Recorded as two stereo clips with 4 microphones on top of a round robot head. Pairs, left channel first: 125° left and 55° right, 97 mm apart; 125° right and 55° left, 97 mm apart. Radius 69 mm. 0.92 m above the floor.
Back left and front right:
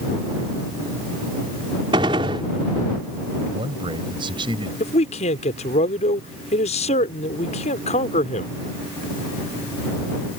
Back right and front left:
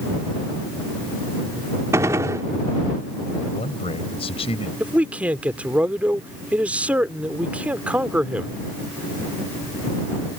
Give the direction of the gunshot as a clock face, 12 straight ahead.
12 o'clock.